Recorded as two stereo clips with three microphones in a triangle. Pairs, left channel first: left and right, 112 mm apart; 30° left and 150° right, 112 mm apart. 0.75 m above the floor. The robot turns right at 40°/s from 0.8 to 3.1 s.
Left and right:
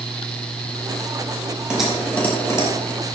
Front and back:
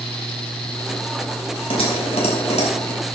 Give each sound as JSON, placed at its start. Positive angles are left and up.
{"t": 1.7, "sound": "typing on a keyboard", "azimuth_deg": -10, "distance_m": 3.0}